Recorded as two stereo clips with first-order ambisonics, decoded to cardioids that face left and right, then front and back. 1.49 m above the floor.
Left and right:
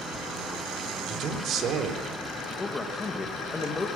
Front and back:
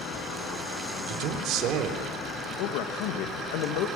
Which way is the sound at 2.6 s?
15° left.